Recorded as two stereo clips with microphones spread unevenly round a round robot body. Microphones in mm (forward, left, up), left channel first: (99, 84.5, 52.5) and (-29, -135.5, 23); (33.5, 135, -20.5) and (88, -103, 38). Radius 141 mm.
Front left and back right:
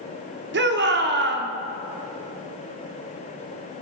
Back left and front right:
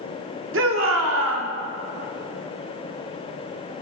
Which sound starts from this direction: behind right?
A shout, at 0.5 s.